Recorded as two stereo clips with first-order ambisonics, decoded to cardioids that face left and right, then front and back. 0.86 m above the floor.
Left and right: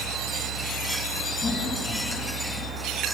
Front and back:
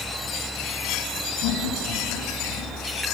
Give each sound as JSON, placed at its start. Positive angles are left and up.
{"t": 1.4, "sound": "laughter", "azimuth_deg": 10, "distance_m": 8.5}